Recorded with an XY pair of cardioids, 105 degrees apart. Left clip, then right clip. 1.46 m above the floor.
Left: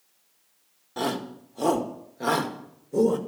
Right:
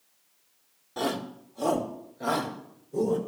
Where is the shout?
10° left, 1.9 m; by 3.2 s 55° left, 2.5 m.